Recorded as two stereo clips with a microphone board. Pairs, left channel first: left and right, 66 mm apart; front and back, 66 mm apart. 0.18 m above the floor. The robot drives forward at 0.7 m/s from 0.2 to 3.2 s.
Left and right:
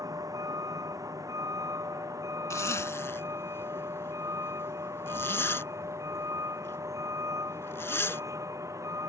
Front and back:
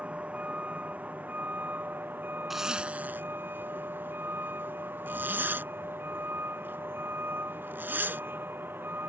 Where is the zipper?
95° left; by 8.2 s 130° left.